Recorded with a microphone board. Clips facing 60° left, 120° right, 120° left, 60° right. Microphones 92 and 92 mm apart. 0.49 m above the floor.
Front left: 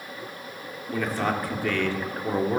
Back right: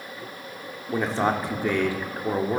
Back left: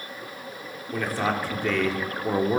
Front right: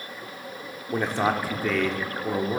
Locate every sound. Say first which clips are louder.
0.9 s a man speaking: back right 3 dB, front right 2 dB; 95° right, 0.9 m; by 2.6 s 155° left, 0.9 m